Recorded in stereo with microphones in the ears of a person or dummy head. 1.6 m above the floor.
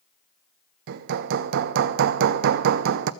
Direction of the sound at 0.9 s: 65° right (ahead or behind).